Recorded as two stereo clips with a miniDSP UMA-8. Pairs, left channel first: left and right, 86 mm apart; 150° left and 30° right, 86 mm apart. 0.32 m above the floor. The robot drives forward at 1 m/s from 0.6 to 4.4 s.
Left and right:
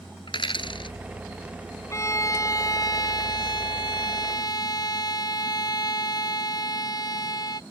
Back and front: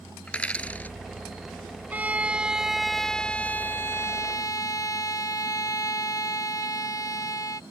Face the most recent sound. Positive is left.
turn(degrees=115)